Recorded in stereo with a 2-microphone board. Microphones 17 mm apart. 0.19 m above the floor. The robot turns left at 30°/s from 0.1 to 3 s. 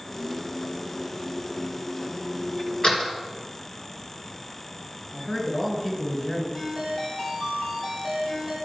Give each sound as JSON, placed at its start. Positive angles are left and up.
{"t": 2.8, "sound": "a door slam", "side_deg": 55, "distance_m": 2.0}
{"t": 5.1, "sound": "a man speaking", "side_deg": 25, "distance_m": 2.5}
{"t": 6.5, "sound": "a ringtone", "side_deg": 40, "distance_m": 3.0}